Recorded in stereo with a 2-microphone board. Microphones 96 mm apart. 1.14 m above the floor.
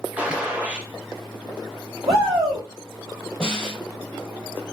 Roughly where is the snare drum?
Centre.